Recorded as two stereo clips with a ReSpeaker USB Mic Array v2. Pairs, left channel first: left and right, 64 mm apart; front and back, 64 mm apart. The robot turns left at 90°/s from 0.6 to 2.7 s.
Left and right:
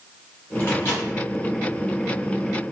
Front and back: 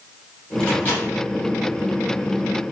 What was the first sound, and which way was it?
A microwave, 75° left.